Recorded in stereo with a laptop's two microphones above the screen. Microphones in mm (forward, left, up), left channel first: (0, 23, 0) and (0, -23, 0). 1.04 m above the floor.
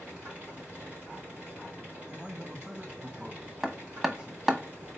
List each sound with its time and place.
0.0 s a machine running: 35° right (ahead or behind), 2.5 m
2.1 s a man speaking: 25° right (ahead or behind), 1.3 m
3.6 s hammering: 10° right (ahead or behind), 0.9 m